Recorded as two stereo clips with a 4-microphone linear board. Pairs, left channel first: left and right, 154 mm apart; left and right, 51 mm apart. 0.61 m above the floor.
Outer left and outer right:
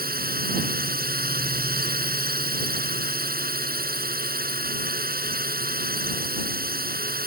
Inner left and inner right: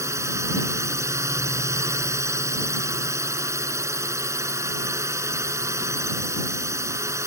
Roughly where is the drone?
Right.